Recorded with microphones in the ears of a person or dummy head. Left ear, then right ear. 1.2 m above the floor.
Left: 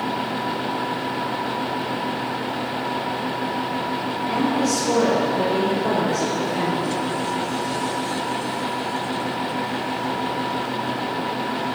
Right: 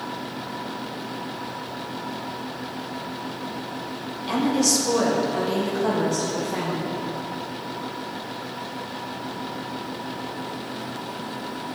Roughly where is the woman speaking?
Right.